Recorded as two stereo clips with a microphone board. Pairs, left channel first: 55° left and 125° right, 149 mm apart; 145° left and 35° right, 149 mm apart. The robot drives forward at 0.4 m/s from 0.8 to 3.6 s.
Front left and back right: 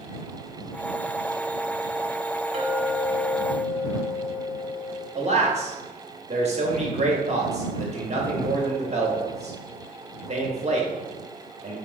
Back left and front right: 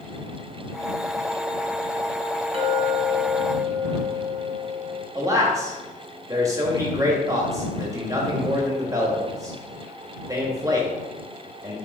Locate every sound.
2.5 s a clink: 85° right, 1.1 m; by 5.0 s 105° right, 1.1 m
5.2 s a man speaking: 100° right, 1.0 m